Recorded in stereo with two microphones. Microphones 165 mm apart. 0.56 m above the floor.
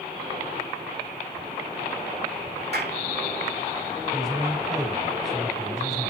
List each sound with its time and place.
2.7 s a clap: 80° right, 6 m
4.1 s a man speaking: centre (ahead or behind), 3 m